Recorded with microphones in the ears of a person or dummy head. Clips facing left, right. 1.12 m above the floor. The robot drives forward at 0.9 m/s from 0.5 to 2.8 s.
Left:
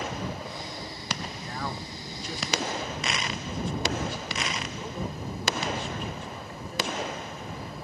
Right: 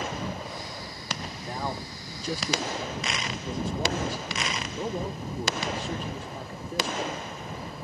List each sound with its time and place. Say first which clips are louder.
1.4 s a man speaking: right 4 dB; 20° right (ahead or behind), 1.0 m; by 7.3 s 25° right (ahead or behind), 0.8 m